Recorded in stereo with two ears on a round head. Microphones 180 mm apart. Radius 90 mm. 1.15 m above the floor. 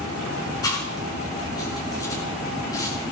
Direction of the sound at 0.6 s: 20° left (ahead or behind).